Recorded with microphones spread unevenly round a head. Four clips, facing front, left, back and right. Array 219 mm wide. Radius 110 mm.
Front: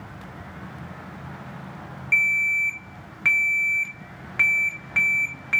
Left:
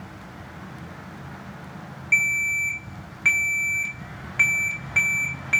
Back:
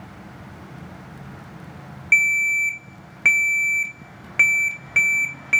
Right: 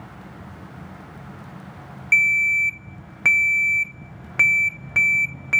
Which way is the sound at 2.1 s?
115° right.